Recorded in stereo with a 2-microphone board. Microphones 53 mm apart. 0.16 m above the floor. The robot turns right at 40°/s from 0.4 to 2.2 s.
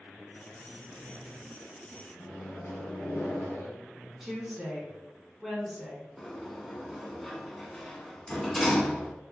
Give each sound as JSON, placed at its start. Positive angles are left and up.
{"t": 2.2, "sound": "a microwave", "side_deg": 45, "distance_m": 1.4}
{"t": 4.2, "sound": "a woman speaking", "side_deg": -5, "distance_m": 1.4}
{"t": 6.2, "sound": "a sliding door", "side_deg": 0, "distance_m": 0.7}